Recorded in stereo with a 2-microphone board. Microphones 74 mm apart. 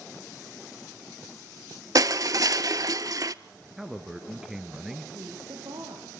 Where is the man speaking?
5° right (ahead or behind), 1.9 m.